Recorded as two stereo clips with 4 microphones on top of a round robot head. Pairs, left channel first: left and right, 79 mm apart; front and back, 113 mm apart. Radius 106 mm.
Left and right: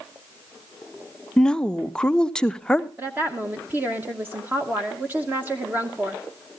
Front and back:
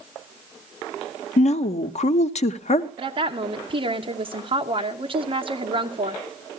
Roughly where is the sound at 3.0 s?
Behind right.